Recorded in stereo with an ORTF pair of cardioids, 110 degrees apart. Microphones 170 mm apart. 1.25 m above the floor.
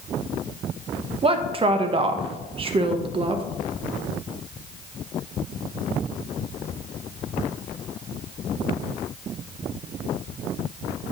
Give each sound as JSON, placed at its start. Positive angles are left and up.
{"t": 1.2, "sound": "a woman speaking", "azimuth_deg": -35, "distance_m": 0.9}